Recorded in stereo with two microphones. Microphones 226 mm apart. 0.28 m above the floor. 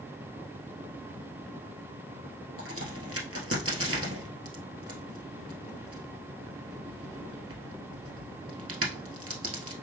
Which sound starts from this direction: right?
A crack, at 2.6 s.